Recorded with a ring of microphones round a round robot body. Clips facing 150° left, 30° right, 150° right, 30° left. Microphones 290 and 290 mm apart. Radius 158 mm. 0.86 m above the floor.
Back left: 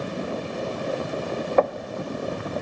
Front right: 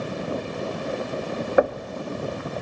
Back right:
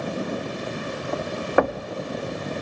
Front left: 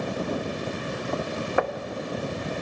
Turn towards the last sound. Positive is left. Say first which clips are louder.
# front right 1 dB, back right 6 dB
turn(degrees=-110)